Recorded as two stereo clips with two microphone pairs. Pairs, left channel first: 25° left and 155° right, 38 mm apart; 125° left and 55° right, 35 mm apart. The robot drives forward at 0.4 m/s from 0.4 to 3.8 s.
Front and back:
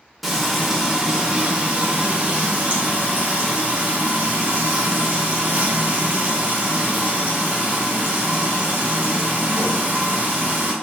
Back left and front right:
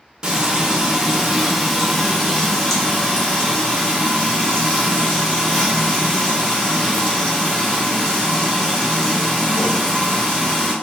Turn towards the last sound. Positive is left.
turn(degrees=-165)